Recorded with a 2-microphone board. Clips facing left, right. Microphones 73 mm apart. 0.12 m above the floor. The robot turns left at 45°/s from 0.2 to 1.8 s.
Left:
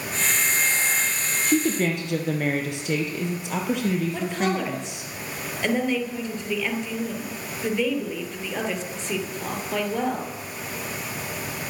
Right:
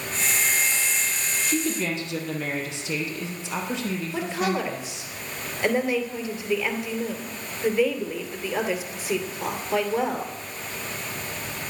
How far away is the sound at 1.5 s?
About 3 m.